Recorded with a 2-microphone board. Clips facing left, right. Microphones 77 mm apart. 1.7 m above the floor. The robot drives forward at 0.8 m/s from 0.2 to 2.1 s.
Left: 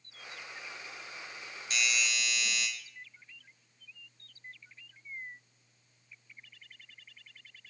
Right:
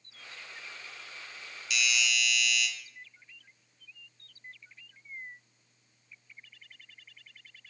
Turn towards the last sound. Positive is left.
turn(degrees=35)  # may be behind; listen again after turning